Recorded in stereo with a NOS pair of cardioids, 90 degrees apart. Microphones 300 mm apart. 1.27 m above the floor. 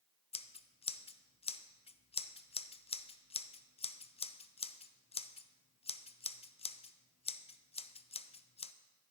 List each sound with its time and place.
0.3 s scissors: 20° left, 0.6 m